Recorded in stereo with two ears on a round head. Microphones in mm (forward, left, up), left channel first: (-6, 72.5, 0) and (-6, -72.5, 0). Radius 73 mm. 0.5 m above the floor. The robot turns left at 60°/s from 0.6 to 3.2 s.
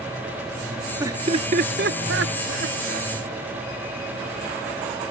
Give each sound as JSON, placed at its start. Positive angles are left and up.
{"t": 1.0, "sound": "laughter", "side_deg": -15}